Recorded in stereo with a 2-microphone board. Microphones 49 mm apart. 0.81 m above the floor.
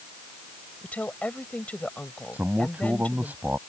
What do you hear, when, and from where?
0.8 s a woman speaking: 30° left (ahead or behind)
2.3 s a man speaking: 40° right (ahead or behind)